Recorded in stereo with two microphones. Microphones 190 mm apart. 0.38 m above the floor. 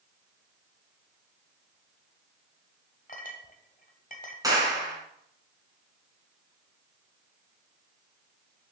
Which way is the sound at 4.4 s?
20° right (ahead or behind).